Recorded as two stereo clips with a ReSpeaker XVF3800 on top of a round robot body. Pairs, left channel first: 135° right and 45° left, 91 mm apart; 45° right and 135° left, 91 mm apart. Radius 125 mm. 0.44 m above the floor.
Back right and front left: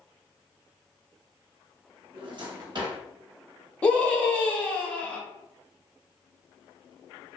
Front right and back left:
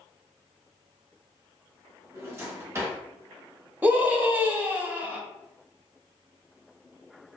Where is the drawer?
75° left, 0.9 m.